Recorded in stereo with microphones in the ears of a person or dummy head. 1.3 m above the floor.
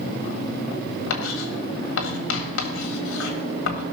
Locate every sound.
1.1 s writing: 85° left, 1.6 m